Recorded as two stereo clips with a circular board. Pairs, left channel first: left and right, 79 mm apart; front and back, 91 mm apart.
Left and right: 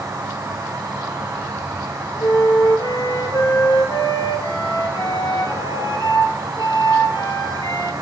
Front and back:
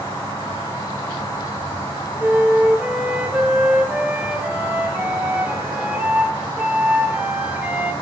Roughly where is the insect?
Ahead right.